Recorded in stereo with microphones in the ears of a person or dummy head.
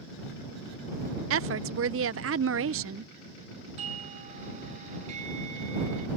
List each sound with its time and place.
1.3 s a woman speaking: 65° right (ahead or behind)
3.8 s a doorbell: 45° right (ahead or behind)